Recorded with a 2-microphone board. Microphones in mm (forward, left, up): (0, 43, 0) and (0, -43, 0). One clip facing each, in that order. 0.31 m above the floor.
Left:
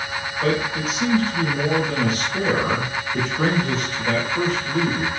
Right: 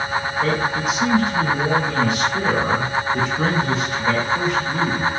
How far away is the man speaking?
About 1.5 m.